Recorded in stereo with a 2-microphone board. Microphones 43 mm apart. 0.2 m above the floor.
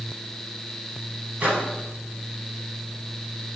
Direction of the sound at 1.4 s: 35° right (ahead or behind).